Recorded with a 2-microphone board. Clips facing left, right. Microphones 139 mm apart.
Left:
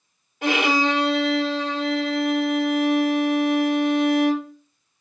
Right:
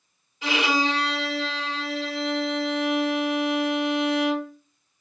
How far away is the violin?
About 1.1 m.